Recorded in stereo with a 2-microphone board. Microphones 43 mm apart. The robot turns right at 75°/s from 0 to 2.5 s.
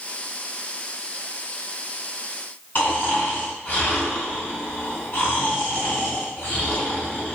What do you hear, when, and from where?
2.8 s snoring: 40° left (ahead or behind), 2.5 m